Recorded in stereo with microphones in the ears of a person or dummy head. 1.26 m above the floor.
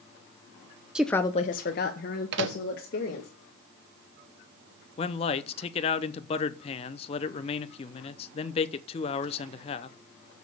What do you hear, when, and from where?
0.9 s a woman speaking: 5° right (ahead or behind), 0.5 m; by 3.3 s 50° left (ahead or behind), 2 m
2.3 s a microwave: 70° right (ahead or behind), 0.7 m
5.0 s a man speaking: 30° left (ahead or behind), 0.6 m